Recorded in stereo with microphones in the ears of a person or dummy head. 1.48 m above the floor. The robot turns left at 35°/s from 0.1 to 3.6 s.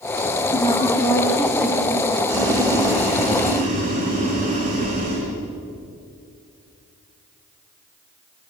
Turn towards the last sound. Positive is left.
turn(degrees=-135)